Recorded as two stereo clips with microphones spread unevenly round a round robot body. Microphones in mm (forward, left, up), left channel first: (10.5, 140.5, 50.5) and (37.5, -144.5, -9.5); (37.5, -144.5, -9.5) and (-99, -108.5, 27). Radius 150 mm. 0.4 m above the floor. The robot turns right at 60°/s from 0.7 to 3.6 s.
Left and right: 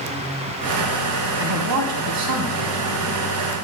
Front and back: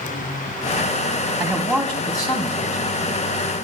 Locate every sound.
1.4 s a man speaking: 125° right, 3 m; by 3.0 s 25° right, 3 m